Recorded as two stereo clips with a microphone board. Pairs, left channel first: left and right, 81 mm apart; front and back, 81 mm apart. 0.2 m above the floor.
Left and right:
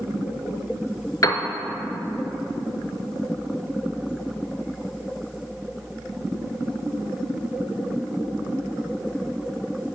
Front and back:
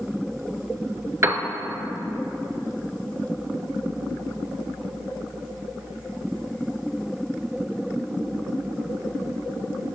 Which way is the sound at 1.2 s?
135° left.